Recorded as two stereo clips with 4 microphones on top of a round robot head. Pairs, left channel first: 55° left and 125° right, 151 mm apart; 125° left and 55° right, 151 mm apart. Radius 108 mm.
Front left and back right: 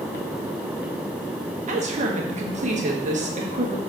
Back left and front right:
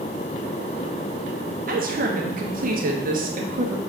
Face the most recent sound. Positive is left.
turn(degrees=-85)